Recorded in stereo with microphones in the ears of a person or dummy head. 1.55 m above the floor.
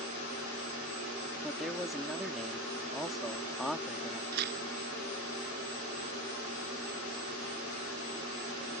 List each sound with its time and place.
1.4 s a man speaking: centre (ahead or behind)
4.3 s tearing paper: 55° right (ahead or behind)